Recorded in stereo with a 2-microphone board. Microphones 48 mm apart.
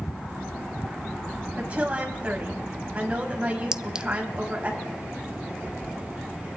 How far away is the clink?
About 0.5 m.